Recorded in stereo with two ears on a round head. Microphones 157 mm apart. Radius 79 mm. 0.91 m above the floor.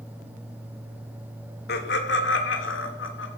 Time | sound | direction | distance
1.7 | laughter | 65° left (ahead or behind) | 2 m